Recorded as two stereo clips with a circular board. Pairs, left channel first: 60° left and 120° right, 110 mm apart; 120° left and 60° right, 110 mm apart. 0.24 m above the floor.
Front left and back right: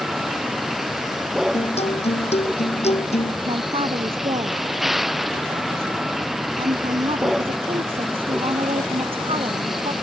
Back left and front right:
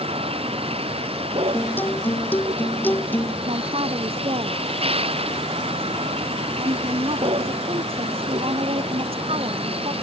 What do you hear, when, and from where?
0.0 s a vehicle: 30° right
1.5 s a guitar: 45° left
3.5 s a man speaking: 90° right